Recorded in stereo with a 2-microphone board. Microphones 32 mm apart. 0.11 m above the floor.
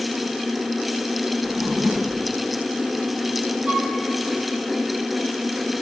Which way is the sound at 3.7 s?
50° right (ahead or behind).